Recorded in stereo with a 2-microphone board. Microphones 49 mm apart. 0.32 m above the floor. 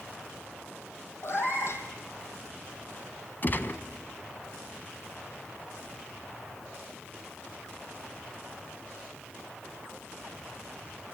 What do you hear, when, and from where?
1.2 s a cat meowing: 60° left (ahead or behind), 2.5 m
3.4 s a gunshot: 40° left (ahead or behind), 1.2 m